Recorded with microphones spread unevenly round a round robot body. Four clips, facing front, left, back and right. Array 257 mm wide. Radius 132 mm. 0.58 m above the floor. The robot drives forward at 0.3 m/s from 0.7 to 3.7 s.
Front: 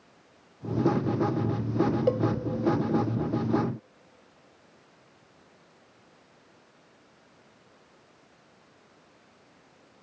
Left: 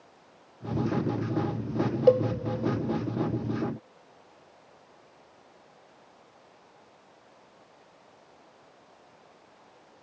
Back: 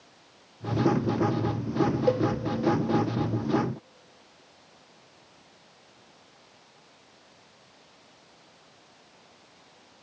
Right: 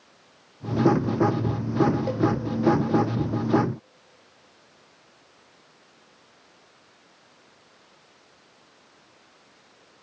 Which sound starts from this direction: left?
A cowbell, at 2.1 s.